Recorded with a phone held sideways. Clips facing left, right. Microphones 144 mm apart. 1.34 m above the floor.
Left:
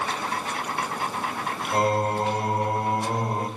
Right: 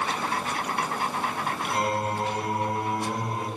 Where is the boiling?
I don't hear boiling.